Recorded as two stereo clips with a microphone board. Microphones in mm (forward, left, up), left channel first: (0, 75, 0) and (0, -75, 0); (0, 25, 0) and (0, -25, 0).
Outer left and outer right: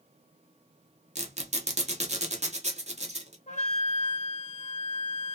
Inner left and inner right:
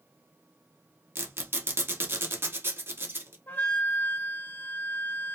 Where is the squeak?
45° right (ahead or behind), 0.8 m.